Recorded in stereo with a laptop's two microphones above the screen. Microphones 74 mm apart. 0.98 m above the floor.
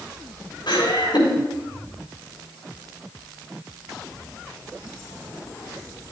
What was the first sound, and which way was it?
Laughter, 85° left.